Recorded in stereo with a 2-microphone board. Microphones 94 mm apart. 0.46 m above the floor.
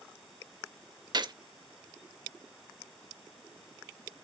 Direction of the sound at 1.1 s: 50° right (ahead or behind).